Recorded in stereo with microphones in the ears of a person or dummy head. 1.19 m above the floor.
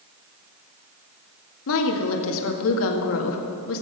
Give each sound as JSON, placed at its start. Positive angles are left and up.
{"t": 1.7, "sound": "a woman speaking", "side_deg": 75, "distance_m": 1.6}